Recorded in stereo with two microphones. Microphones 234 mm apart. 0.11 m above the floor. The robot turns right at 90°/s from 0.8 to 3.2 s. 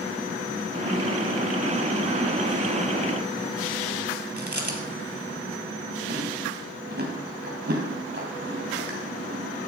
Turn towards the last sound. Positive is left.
turn(degrees=-40)  # may be behind; listen again after turning